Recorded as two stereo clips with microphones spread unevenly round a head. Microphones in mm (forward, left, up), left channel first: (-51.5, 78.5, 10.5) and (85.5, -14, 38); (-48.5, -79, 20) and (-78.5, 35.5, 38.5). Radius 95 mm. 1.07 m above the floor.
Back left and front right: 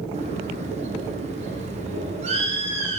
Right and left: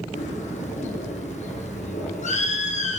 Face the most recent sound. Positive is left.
turn(degrees=-90)